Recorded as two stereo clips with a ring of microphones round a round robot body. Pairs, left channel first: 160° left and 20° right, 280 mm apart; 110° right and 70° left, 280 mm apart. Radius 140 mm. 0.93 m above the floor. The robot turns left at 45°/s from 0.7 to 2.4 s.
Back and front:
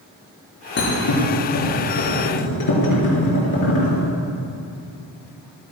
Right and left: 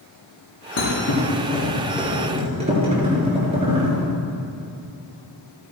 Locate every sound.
0.8 s a thud: 150° right, 4.5 m; by 4.0 s 135° left, 4.5 m